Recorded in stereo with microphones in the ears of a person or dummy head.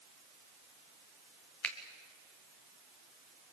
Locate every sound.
1.6 s a finger snap: 10° left (ahead or behind), 1.7 m